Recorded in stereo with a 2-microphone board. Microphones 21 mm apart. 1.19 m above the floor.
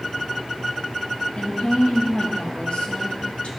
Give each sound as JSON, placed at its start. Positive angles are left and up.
{"t": 1.4, "sound": "a woman speaking", "side_deg": 80, "distance_m": 1.5}